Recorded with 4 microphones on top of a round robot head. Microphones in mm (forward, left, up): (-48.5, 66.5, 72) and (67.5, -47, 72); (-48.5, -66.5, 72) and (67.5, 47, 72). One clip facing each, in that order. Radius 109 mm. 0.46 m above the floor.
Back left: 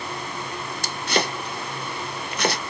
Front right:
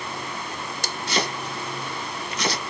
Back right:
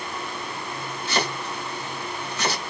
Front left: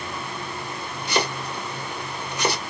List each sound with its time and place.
1.1 s chopping: 115° left, 1.6 m